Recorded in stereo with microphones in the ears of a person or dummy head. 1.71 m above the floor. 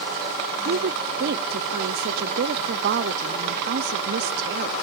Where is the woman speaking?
60° right (ahead or behind).